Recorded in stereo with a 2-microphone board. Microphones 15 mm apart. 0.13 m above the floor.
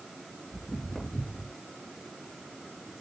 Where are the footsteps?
55° left (ahead or behind), 5 m; by 1.5 s 50° left (ahead or behind), 5.5 m.